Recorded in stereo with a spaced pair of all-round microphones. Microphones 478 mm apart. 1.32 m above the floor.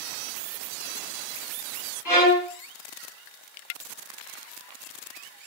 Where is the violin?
40° left (ahead or behind), 1.3 m.